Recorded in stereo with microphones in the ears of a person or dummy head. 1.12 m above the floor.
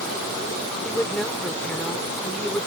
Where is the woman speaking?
5° left (ahead or behind).